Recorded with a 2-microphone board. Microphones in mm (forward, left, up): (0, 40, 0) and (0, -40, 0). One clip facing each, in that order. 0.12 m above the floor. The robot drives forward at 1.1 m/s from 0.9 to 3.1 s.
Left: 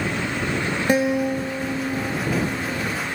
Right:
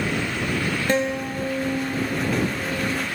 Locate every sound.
0.9 s a guitar: 15° left (ahead or behind), 0.8 m; by 3.0 s 5° left (ahead or behind), 3 m